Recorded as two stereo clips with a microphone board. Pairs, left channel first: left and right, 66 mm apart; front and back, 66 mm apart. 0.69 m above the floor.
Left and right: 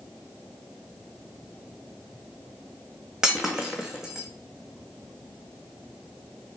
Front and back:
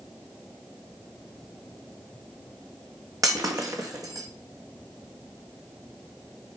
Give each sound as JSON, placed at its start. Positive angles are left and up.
{"t": 3.2, "sound": "breaking glass", "azimuth_deg": -170, "distance_m": 1.7}